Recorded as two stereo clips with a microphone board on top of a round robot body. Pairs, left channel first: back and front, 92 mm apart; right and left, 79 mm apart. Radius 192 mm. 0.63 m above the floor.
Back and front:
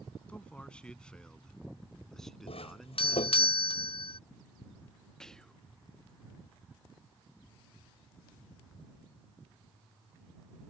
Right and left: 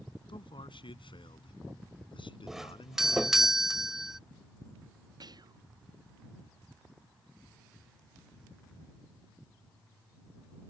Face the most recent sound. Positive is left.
turn(degrees=100)